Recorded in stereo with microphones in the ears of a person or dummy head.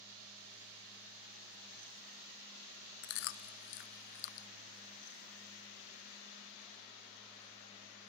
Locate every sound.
3.0 s chewing: 50° left (ahead or behind), 0.5 m